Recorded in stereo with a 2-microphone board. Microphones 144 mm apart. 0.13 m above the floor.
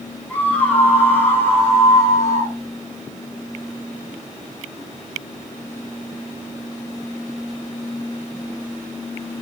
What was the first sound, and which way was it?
A scream, 10° left (ahead or behind).